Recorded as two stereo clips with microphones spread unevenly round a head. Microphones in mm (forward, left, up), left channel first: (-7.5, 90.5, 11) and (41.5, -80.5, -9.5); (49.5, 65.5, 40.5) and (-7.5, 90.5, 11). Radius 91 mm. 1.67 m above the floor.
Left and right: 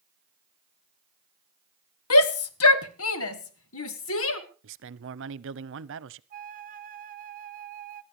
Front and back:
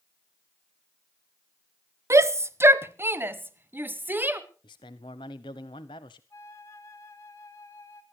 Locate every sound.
2.1 s a shout: 115° left, 1.1 m; by 4.4 s 100° left, 2.5 m
4.6 s a man speaking: 60° right, 0.9 m
6.3 s a flute: 30° right, 1.2 m